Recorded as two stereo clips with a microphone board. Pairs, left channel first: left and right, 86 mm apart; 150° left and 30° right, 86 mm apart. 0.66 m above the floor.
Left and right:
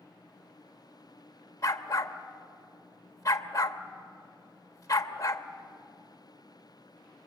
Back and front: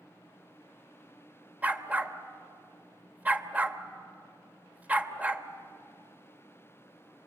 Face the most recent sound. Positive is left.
turn(degrees=40)